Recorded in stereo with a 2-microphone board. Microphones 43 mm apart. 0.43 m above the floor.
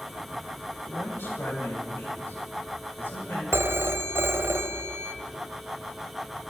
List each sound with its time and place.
0.8 s a man speaking: 60° left (ahead or behind), 3 m
3.5 s a phone ringing: 70° right (ahead or behind), 1.0 m